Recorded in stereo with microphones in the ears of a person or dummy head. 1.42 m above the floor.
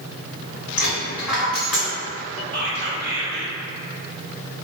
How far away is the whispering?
About 0.7 m.